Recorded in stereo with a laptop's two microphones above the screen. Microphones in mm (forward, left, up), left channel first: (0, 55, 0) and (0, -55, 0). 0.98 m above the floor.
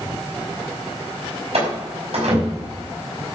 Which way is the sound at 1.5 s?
65° right (ahead or behind).